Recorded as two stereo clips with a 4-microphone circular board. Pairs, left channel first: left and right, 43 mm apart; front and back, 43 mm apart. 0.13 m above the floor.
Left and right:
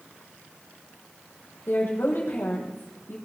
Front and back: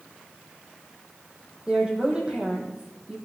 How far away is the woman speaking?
About 5.5 m.